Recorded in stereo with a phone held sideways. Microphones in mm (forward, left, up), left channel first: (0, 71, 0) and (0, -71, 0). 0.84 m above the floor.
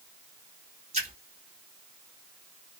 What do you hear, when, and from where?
0.9 s a splash: 55° right (ahead or behind), 1.5 m